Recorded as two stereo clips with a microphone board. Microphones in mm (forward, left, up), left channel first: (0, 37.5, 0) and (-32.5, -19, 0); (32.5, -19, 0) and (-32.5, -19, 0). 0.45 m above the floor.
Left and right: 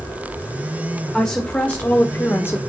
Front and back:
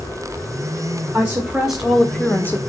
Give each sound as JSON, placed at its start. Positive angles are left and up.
{"t": 1.1, "sound": "a woman speaking", "azimuth_deg": 135, "distance_m": 1.4}